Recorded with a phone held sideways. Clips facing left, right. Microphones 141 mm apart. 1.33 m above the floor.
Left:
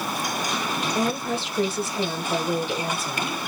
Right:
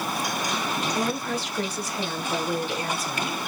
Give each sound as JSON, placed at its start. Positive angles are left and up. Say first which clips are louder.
{"t": 0.9, "sound": "a woman speaking", "louder": "left 2 dB", "side_deg": 25, "distance_m": 1.8}